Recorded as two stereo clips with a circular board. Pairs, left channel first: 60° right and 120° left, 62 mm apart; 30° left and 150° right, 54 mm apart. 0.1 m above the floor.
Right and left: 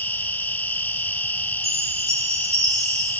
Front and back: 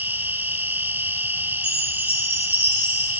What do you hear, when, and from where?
0.0 s an insect: 110° right, 1.0 m
1.6 s a chime: 80° left, 3.5 m